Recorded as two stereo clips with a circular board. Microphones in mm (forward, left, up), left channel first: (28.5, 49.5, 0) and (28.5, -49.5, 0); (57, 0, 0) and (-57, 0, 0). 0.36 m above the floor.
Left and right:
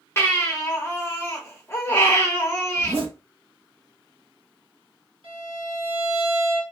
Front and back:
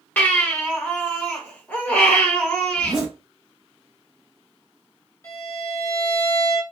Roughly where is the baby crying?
Ahead left.